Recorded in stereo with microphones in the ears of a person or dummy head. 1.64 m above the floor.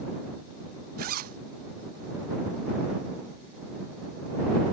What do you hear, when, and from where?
1.0 s a zipper: 50° right (ahead or behind)